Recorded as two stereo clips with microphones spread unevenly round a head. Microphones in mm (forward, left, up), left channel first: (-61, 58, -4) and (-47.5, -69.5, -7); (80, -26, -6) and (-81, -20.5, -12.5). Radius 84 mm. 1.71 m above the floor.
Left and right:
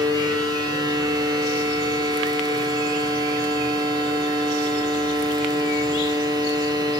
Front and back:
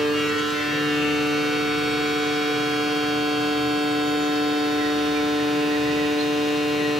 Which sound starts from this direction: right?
A machine running, at 0.0 s.